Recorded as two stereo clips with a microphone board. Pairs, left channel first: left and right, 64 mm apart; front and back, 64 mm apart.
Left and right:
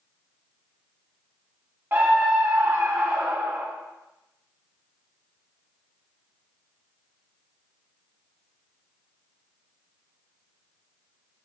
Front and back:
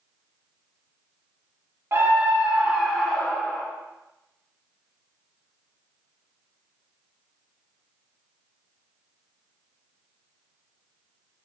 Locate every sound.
1.9 s a scream: 135° right, 1.9 m; by 3.7 s 60° right, 2.0 m